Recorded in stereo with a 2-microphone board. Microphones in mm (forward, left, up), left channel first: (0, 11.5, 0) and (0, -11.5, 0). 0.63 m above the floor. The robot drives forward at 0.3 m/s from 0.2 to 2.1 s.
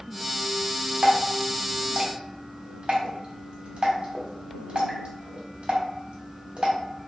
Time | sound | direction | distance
1.0 | dripping | 80° right | 0.6 m